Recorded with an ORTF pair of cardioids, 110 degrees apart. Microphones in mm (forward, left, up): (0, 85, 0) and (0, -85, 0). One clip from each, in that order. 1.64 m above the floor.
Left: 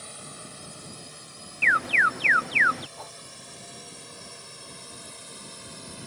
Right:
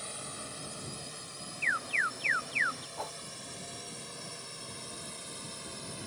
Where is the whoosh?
20° right.